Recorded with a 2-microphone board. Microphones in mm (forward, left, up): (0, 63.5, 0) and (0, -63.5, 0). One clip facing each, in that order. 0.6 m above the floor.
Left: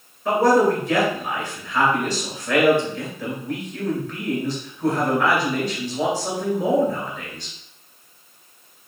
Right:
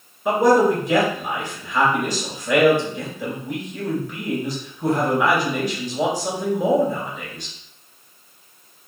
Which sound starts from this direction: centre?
A man speaking, at 0.2 s.